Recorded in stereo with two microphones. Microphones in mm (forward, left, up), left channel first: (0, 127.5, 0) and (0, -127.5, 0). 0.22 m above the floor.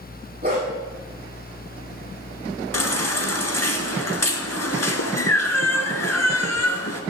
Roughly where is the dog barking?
Right.